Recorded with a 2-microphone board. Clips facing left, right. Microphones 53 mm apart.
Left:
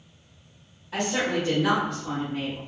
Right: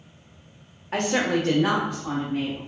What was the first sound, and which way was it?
A woman speaking, 50° right (ahead or behind).